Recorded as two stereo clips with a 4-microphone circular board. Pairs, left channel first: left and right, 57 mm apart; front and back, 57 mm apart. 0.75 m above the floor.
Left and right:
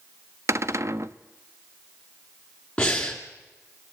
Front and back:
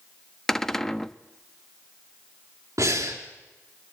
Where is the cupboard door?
80° right, 0.6 m.